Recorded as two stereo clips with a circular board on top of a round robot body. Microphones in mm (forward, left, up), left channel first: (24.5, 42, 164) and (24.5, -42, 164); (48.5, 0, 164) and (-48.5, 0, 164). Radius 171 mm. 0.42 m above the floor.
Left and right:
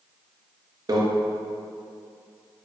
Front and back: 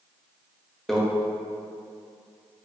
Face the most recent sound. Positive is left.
turn(degrees=-85)